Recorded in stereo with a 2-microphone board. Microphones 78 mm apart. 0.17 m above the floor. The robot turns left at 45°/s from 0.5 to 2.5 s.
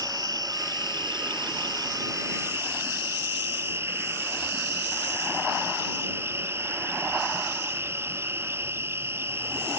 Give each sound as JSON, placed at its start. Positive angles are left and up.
{"t": 0.0, "sound": "an insect", "azimuth_deg": -55}